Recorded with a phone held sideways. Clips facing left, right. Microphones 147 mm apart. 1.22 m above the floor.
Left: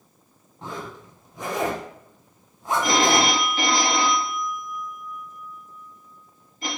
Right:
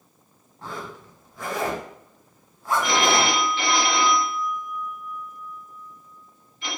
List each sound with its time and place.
0.6 s a zipper: 20° left (ahead or behind), 0.8 m
2.8 s a phone ringing: 40° left (ahead or behind), 0.9 m